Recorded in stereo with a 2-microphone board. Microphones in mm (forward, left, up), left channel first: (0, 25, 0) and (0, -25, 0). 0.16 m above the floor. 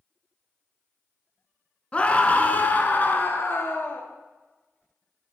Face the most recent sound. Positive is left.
turn(degrees=50)  # may be behind; listen again after turning